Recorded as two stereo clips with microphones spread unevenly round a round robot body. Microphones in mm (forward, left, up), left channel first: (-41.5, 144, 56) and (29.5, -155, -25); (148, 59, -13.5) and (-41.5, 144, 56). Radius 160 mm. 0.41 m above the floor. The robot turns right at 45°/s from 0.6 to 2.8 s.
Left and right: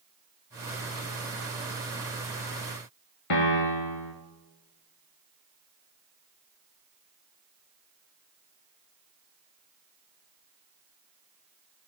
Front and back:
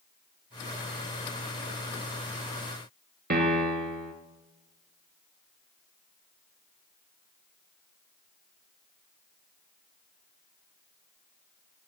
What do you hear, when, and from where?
3.3 s a piano: 115° left, 1.9 m